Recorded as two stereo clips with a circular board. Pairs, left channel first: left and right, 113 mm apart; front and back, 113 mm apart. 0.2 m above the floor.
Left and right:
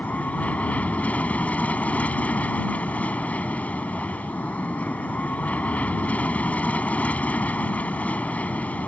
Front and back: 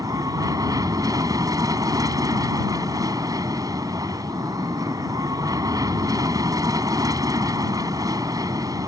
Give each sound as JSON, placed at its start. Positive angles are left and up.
{"t": 0.0, "sound": "an aircraft", "azimuth_deg": 160}